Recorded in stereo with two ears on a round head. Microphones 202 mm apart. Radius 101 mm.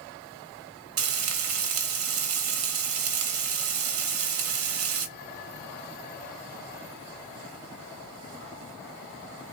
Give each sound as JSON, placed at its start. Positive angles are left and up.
{"t": 1.0, "sound": "frying", "side_deg": -65, "distance_m": 1.1}